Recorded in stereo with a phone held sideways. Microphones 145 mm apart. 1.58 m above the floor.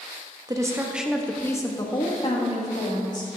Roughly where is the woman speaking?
Right.